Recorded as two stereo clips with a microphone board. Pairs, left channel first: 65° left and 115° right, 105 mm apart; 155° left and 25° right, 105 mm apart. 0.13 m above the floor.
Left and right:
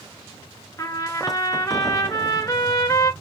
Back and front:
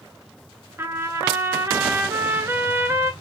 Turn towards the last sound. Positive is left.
turn(degrees=30)